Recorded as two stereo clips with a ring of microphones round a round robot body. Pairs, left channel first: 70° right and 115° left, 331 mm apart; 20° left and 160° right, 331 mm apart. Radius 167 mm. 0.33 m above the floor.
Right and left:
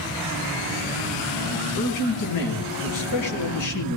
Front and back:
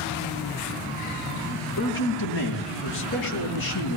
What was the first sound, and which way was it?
A man speaking, 35° right.